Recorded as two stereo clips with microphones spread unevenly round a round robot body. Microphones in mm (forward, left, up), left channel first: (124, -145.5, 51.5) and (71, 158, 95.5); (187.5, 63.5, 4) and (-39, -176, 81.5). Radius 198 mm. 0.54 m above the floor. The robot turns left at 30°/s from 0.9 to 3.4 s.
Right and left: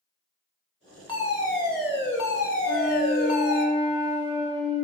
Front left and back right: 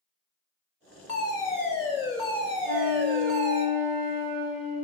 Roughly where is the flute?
Behind right.